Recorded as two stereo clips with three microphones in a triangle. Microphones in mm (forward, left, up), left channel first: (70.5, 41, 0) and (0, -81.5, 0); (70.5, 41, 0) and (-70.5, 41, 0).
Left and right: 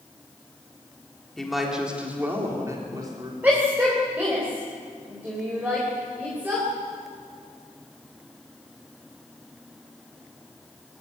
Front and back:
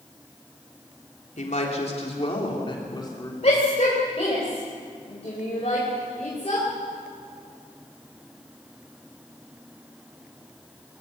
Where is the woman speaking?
30° right, 3.5 m; by 3.3 s 65° right, 3.5 m.